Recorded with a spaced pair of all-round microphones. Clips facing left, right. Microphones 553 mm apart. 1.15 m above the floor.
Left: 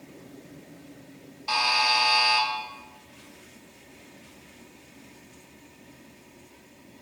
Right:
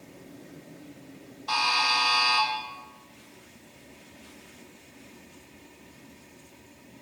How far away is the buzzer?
About 0.6 m.